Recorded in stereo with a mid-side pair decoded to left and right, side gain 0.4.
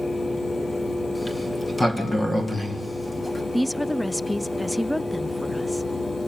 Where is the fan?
20° left, 0.9 m.